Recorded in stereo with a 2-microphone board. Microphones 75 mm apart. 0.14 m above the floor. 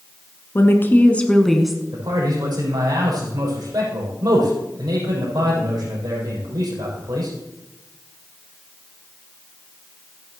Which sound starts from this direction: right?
A man speaking, at 1.9 s.